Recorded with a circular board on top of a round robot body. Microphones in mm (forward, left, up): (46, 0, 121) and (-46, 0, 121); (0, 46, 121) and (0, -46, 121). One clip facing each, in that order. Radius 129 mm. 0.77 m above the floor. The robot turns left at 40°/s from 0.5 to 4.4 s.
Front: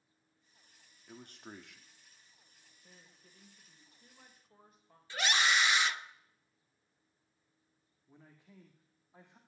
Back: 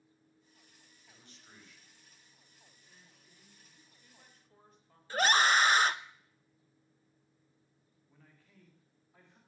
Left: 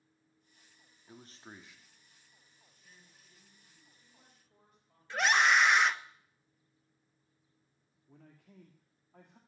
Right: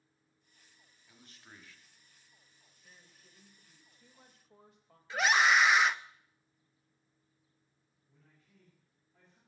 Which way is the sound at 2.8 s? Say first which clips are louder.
Front 6 dB, right 1 dB; 20° right.